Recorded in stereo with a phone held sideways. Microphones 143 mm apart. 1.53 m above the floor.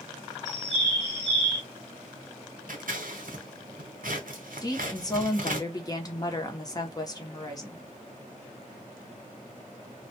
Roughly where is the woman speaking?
Left.